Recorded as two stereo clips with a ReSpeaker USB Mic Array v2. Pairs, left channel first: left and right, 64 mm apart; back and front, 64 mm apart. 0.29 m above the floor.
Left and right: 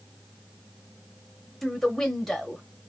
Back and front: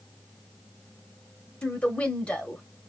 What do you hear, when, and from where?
1.6 s a woman speaking: 170° left, 0.9 m